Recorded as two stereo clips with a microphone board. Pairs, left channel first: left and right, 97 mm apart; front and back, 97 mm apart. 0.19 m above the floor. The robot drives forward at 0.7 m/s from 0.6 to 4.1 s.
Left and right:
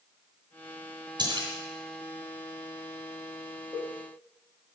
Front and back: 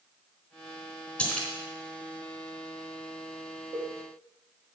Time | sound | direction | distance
1.2 | a splash | 75° right | 2.5 m
3.7 | a cowbell | 170° left | 3.5 m